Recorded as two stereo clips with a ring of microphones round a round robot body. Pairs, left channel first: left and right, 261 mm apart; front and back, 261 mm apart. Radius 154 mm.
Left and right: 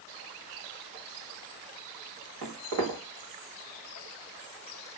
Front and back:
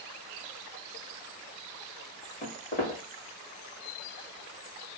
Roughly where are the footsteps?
Ahead right.